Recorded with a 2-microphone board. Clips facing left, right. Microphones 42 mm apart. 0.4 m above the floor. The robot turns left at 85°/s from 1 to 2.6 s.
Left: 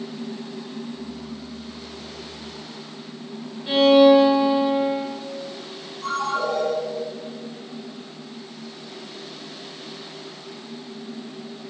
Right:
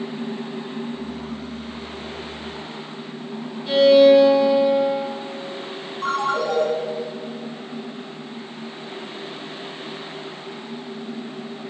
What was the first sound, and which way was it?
A violin, 10° left (ahead or behind).